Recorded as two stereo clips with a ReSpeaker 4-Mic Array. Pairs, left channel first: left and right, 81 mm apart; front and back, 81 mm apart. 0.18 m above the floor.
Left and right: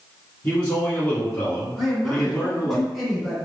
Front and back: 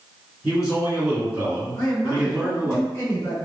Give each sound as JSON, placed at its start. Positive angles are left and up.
{"t": 0.4, "sound": "a man speaking", "azimuth_deg": 125, "distance_m": 1.6}
{"t": 1.8, "sound": "a man speaking", "azimuth_deg": -10, "distance_m": 1.9}